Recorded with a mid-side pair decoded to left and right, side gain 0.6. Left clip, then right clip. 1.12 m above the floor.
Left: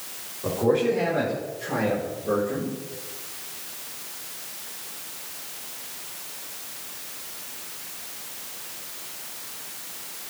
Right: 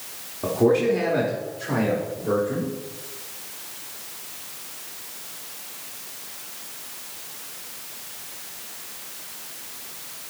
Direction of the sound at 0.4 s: 65° right.